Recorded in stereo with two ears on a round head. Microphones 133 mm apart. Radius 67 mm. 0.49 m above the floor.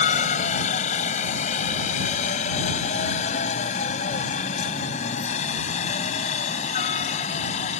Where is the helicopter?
50° left (ahead or behind); by 7.8 s 45° left (ahead or behind).